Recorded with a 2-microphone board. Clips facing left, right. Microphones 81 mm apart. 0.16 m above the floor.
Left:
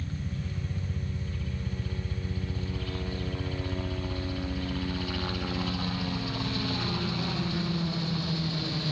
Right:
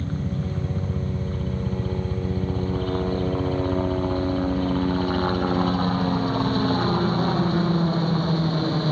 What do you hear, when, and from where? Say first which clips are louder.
0.0 s a helicopter: right 9 dB; 45° right (ahead or behind); by 8.9 s 40° right (ahead or behind)